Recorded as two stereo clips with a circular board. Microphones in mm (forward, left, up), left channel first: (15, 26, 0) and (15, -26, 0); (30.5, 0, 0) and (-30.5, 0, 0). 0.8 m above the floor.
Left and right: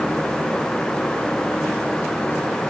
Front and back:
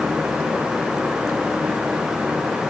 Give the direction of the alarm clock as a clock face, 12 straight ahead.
No alarm clock in this recording.